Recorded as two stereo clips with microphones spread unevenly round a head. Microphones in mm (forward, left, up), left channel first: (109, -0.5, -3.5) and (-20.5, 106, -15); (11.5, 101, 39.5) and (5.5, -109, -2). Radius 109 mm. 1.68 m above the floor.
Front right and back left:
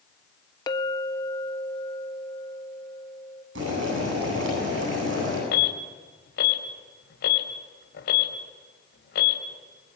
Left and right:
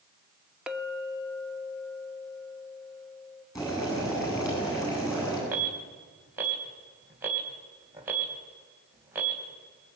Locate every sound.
0.7 s a clink: 5° left, 1.1 m
3.5 s boiling: 160° left, 9.5 m
5.5 s an alarm: 15° right, 3 m